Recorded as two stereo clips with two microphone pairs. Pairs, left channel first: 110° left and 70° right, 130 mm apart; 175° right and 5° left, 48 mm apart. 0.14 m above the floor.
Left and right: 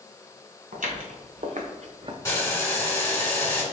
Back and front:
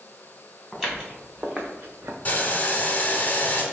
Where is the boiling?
160° left, 1.0 m.